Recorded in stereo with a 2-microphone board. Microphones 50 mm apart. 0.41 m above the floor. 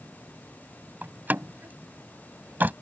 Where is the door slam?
35° right (ahead or behind).